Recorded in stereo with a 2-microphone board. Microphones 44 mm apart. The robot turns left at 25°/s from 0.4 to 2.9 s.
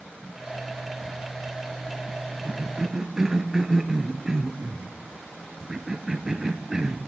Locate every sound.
2.5 s a cough: 20° right (ahead or behind), 0.9 m; by 7.0 s 10° right (ahead or behind), 0.9 m